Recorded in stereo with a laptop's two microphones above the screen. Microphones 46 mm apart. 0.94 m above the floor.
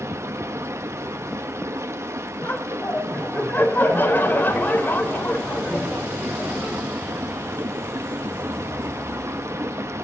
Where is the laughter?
40° left (ahead or behind), 4.5 m.